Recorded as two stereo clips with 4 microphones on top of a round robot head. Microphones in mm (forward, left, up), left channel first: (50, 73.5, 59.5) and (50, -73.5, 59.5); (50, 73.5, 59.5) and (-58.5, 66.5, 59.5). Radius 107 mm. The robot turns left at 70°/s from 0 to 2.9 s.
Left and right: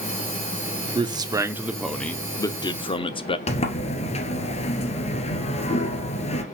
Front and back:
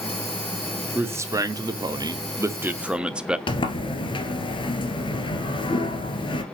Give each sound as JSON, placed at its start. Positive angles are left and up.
{"t": 0.9, "sound": "a man speaking", "azimuth_deg": -115, "distance_m": 0.9}
{"t": 3.5, "sound": "a sliding door", "azimuth_deg": 45, "distance_m": 1.5}